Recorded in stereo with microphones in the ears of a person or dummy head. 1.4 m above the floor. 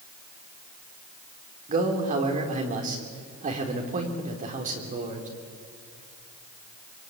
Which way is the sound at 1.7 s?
40° right (ahead or behind).